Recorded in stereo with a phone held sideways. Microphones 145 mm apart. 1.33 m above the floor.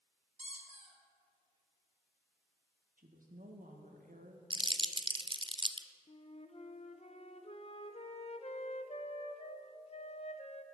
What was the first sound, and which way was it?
A squeak, 50° right (ahead or behind).